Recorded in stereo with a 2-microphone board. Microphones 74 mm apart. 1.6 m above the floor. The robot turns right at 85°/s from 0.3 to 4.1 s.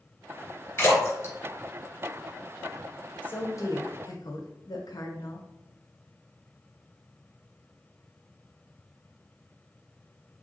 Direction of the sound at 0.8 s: 30° left (ahead or behind).